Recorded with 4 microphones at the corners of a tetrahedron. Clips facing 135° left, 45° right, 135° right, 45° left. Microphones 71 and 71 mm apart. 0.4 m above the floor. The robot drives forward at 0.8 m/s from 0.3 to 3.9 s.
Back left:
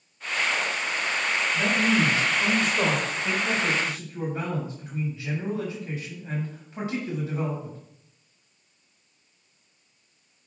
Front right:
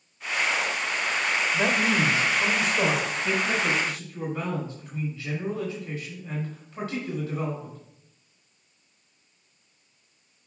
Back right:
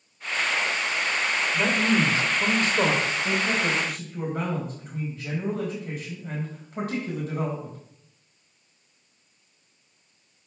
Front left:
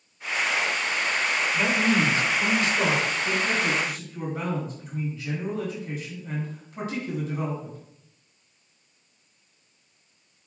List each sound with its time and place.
1.5 s a man speaking: 55° right, 1.0 m; by 7.8 s 160° right, 1.8 m